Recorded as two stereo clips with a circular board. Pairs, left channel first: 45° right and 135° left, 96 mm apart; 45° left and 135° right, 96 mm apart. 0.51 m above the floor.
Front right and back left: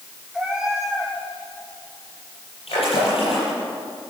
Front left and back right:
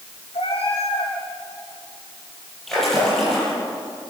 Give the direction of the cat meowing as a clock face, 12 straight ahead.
10 o'clock.